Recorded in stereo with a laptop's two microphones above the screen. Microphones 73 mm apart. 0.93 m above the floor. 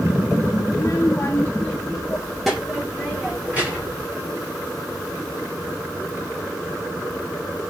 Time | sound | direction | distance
0.7 | a child speaking | 45° left (ahead or behind) | 1.4 m